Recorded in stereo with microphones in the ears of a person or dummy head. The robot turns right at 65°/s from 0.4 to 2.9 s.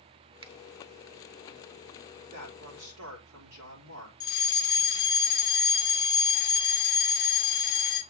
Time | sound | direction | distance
0.4 | a finger snap | 25° right (ahead or behind) | 0.6 m
2.3 | a man speaking | 140° right | 3.5 m
4.2 | a fire alarm | 15° left (ahead or behind) | 1.6 m